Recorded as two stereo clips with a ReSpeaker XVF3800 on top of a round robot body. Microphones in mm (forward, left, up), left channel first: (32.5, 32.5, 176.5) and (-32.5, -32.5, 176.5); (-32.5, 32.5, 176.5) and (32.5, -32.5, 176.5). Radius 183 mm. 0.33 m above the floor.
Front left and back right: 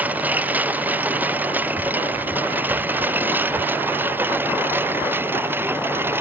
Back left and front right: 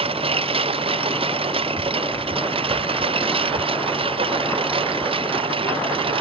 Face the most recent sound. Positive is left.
turn(degrees=-70)